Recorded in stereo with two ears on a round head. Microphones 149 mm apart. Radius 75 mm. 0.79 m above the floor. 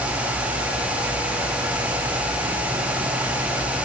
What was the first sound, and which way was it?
Only background noise.